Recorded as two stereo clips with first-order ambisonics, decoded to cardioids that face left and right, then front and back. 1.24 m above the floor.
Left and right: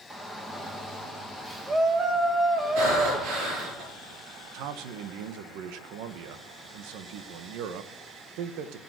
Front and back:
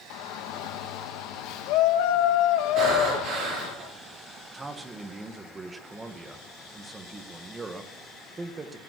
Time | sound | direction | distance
0.1 | a shout | 10° right | 1.5 m
2.8 | breathing | 125° right | 5.5 m
4.5 | a man speaking | 105° right | 1.2 m